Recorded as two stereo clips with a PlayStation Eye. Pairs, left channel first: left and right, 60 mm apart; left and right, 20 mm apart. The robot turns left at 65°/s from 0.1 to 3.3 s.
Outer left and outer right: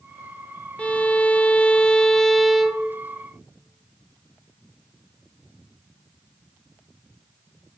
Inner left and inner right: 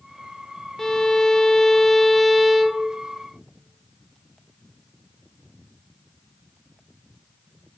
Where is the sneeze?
No sneeze in this recording.